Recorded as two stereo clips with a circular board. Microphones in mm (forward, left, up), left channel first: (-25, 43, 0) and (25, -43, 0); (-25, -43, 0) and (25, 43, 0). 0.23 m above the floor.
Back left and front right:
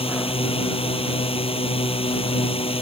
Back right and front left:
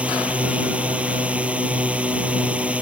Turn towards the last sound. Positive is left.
turn(degrees=135)